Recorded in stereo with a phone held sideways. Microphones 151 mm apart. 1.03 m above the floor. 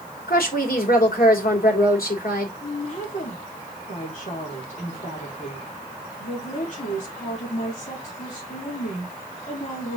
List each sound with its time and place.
0.3 s a woman speaking: 75° left (ahead or behind), 3.5 m
2.6 s a woman speaking: 55° left (ahead or behind), 3 m